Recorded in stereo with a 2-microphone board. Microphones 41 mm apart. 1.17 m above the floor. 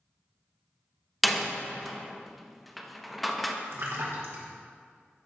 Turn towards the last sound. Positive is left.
turn(degrees=-75)  # may be behind; listen again after turning